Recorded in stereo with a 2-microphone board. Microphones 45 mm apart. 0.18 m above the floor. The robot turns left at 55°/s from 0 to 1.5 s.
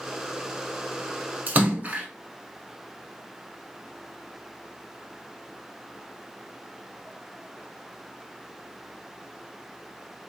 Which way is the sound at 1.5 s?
40° right (ahead or behind).